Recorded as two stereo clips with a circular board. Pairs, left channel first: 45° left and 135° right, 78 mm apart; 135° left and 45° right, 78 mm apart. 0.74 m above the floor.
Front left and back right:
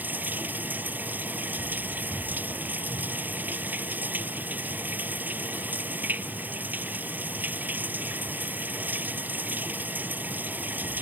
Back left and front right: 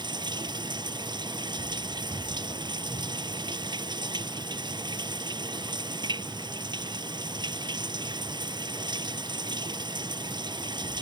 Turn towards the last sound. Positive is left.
turn(degrees=-65)